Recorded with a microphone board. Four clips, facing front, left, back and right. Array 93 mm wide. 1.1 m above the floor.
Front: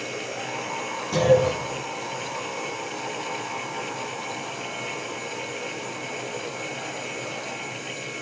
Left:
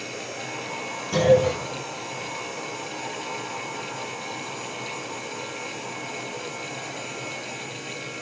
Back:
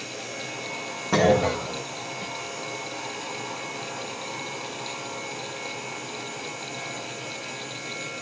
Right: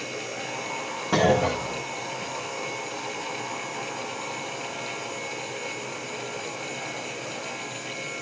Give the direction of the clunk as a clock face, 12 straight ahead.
4 o'clock.